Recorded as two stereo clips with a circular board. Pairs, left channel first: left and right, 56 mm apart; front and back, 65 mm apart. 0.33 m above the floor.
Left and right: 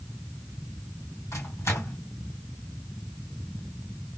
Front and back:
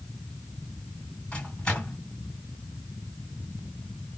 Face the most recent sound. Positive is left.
turn(degrees=70)